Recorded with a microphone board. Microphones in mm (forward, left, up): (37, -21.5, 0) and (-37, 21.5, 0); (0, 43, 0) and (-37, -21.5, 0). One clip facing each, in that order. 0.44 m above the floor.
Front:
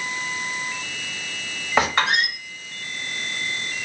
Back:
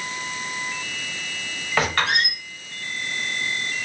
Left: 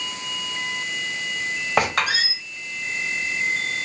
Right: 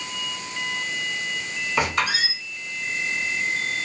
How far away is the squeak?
About 1.2 m.